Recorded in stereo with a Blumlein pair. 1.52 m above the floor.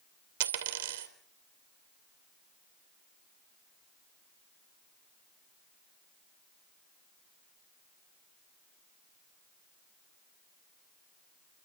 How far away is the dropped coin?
About 2.5 m.